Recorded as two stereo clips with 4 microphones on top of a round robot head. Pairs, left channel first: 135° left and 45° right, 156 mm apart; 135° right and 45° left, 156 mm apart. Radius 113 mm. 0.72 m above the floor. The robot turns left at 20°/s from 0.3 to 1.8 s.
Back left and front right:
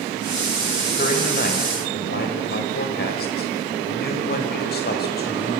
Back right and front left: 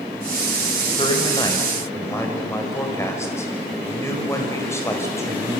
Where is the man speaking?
165° left, 5 m; by 5.6 s 150° left, 5 m.